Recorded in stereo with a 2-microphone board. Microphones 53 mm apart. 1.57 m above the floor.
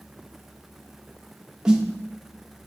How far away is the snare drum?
About 1.1 m.